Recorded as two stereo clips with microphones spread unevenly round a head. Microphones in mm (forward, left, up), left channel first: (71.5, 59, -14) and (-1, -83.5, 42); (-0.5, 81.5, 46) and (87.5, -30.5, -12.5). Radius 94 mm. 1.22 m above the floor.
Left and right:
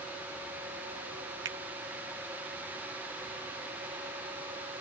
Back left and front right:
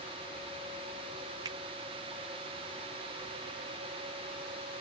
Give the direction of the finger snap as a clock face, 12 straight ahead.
4 o'clock.